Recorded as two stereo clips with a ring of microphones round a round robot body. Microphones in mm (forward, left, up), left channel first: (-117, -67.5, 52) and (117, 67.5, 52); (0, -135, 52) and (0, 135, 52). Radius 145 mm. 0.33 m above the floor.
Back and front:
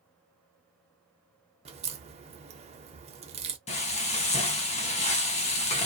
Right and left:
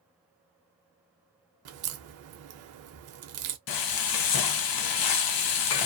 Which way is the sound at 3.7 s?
80° right.